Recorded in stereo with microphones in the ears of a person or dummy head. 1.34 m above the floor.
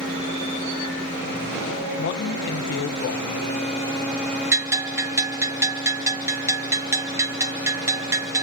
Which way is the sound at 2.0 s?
50° left (ahead or behind).